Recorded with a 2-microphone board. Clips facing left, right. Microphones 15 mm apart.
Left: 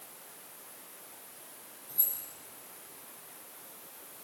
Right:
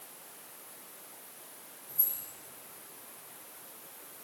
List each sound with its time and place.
1.9 s keys jangling: 70° left (ahead or behind), 10 m